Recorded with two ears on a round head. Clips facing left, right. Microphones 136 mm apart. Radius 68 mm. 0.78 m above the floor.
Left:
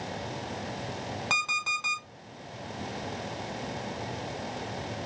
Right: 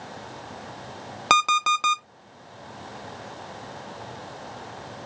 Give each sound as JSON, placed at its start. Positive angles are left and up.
{"t": 1.3, "sound": "an alarm clock", "side_deg": -70, "distance_m": 0.6}